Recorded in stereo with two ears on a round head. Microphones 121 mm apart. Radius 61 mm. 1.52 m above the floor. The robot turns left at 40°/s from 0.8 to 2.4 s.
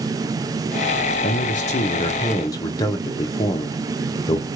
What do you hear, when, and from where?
1.2 s a man speaking: 70° left, 0.8 m; by 4.5 s 25° left, 0.8 m